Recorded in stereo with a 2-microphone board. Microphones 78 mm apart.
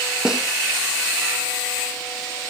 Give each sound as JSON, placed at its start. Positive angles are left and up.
{"t": 0.2, "sound": "a snare drum", "side_deg": -10, "distance_m": 2.0}